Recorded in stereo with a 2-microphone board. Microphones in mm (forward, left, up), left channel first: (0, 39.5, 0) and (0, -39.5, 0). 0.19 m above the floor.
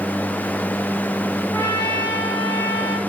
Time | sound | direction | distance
1.5 | a trumpet | 20° left (ahead or behind) | 9.5 m